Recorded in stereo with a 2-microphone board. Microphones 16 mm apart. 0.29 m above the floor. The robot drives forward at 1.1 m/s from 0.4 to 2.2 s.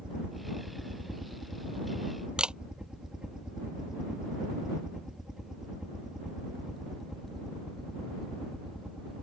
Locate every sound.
0.0 s a helicopter: 75° right (ahead or behind); by 9.2 s 5° right (ahead or behind)
2.4 s a camera shutter: 75° right (ahead or behind)